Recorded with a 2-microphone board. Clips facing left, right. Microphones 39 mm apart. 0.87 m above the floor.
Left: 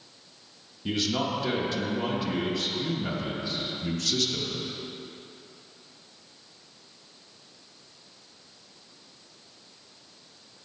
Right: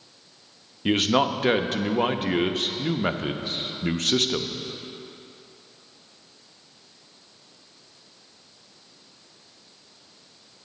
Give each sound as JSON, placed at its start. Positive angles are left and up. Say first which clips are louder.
{"t": 0.8, "sound": "a man speaking", "louder": "right 7 dB", "side_deg": -50, "distance_m": 0.6}